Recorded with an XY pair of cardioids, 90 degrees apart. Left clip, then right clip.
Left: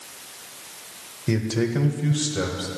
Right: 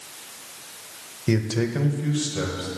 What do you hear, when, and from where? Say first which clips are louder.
1.3 s a man speaking: even; 20° right, 0.9 m; by 2.7 s 35° left, 1.6 m